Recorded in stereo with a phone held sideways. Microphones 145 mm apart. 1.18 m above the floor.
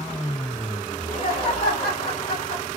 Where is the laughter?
60° left (ahead or behind), 1.3 m.